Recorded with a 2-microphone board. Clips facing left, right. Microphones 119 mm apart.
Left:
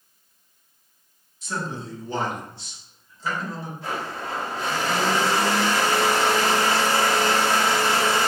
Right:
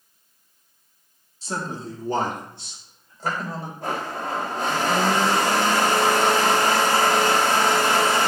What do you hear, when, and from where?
1.4 s a man speaking: 35° right (ahead or behind), 1.7 m; by 3.7 s 60° right (ahead or behind), 3.5 m
3.8 s a blender: 50° right (ahead or behind), 1.4 m